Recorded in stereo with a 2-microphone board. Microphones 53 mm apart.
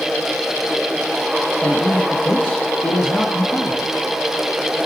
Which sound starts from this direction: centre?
A man speaking, at 1.6 s.